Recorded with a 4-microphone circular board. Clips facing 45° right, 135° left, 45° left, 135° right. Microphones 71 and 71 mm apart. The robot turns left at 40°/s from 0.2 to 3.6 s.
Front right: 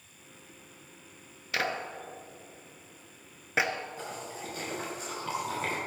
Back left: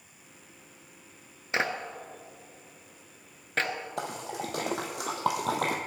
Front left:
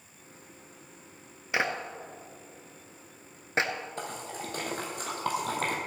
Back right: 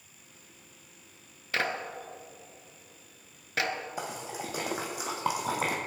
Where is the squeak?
I don't hear a squeak.